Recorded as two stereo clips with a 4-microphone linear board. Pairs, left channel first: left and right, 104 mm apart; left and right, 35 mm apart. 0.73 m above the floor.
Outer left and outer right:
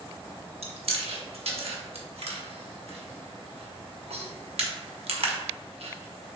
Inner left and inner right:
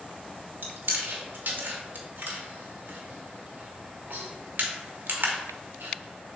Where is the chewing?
75° right (ahead or behind), 0.8 m.